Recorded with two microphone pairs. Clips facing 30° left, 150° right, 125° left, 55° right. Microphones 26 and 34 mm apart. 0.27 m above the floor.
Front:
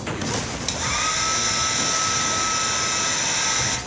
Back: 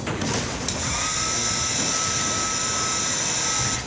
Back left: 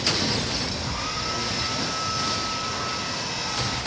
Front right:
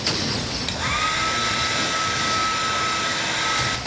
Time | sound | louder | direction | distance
0.7 | a hair dryer | front 6 dB, front right 7 dB | 40° right | 2.5 m